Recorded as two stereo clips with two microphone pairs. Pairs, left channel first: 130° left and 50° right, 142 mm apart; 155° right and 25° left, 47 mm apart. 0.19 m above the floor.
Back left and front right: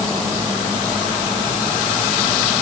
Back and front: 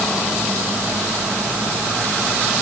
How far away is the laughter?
No laughter in this recording.